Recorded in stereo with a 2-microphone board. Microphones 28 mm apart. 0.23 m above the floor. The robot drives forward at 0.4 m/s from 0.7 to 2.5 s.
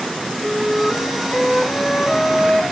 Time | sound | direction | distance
0.4 | a flute | 30° left (ahead or behind) | 1.5 m